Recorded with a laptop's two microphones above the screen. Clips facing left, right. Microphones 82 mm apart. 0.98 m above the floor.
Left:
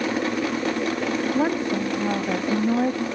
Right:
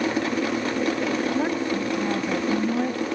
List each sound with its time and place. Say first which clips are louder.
1.3 s a woman speaking: left 2 dB; 25° left (ahead or behind), 1.4 m